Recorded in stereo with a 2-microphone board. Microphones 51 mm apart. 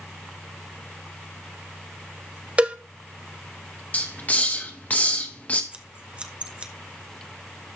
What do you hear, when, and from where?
2.6 s a cowbell: 25° right (ahead or behind), 0.6 m
3.9 s a hiss: 30° left (ahead or behind), 1.0 m
5.7 s scissors: 25° right (ahead or behind), 0.8 m